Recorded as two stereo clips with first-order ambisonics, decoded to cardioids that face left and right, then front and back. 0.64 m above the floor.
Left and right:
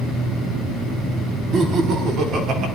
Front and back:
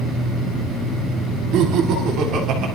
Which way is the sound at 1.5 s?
150° right.